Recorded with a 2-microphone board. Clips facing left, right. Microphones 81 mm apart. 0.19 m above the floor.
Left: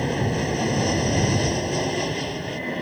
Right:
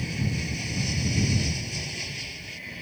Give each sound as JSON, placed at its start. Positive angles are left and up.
{"t": 0.0, "sound": "an aircraft", "side_deg": 55}